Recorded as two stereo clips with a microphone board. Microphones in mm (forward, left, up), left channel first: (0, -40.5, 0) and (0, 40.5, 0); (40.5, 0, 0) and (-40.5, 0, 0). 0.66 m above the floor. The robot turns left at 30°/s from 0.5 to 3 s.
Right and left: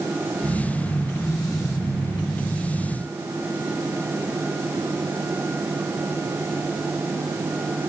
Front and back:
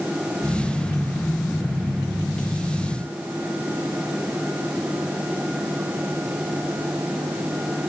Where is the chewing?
No chewing in this recording.